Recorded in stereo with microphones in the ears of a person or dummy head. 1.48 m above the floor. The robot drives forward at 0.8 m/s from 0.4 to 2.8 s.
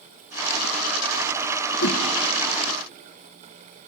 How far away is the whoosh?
About 1.3 m.